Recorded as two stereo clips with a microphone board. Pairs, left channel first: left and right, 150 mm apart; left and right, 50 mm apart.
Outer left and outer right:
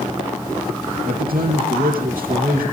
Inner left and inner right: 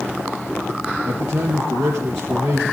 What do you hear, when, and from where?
1.1 s a man speaking: 70° right (ahead or behind), 4.5 m